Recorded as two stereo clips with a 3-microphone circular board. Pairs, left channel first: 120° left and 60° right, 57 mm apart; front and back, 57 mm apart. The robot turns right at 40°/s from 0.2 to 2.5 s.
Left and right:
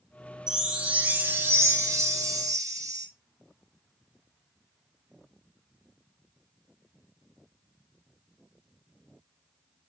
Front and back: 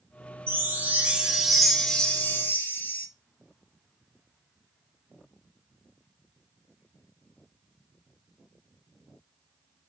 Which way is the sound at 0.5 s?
135° right.